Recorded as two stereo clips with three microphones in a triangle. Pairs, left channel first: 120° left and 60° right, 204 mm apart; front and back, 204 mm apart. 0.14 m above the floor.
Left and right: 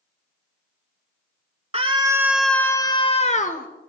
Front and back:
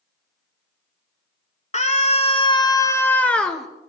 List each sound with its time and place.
1.7 s a scream: 25° right, 1.3 m; by 3.7 s 90° left, 1.7 m